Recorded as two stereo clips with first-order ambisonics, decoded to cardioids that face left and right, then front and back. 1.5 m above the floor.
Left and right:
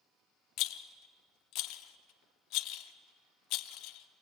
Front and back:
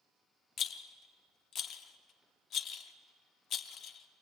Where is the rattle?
55° left, 0.8 m.